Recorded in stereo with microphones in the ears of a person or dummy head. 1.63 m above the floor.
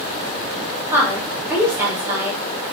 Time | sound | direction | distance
0.9 | a woman speaking | 15° right (ahead or behind) | 1.1 m